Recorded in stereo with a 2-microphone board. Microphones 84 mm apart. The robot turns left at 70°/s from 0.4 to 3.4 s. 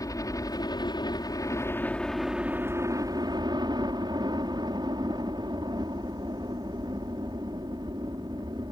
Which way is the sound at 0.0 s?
125° left.